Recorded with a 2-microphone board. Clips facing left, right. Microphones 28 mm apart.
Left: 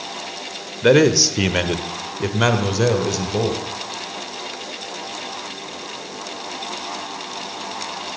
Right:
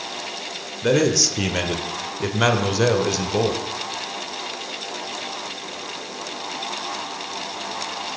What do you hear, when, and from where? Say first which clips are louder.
0.8 s a man speaking: left 5 dB; 40° left (ahead or behind), 1.3 m; by 3.6 s 10° right (ahead or behind), 1.8 m